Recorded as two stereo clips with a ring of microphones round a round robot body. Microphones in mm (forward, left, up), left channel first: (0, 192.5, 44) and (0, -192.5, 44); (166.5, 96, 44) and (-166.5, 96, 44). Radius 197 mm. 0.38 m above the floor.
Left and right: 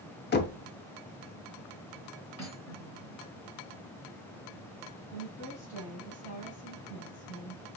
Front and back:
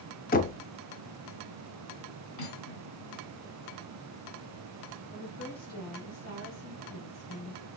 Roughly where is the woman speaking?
Ahead left.